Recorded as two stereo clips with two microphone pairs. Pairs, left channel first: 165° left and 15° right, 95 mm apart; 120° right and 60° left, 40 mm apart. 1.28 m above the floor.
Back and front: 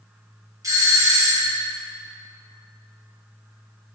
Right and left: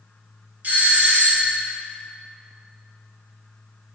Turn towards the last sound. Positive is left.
turn(degrees=30)